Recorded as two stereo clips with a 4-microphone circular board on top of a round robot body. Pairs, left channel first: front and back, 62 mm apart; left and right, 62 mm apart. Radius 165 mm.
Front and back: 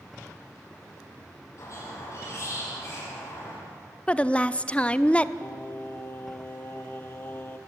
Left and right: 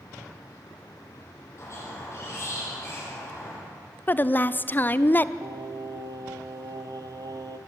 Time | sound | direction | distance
1.6 | a squeak | 45° left | 8.5 m
4.1 | a woman speaking | 60° left | 0.9 m
5.4 | singing | 65° right | 0.8 m